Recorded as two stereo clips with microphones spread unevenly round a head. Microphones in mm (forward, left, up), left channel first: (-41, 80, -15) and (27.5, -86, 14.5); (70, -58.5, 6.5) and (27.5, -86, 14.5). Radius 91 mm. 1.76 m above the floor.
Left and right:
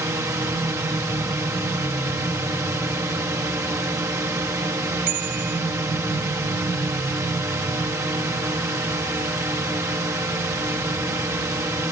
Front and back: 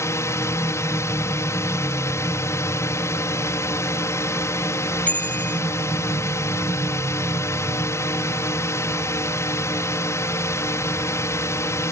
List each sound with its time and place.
0.0 s a drone: 10° left
5.1 s a bicycle bell: 30° right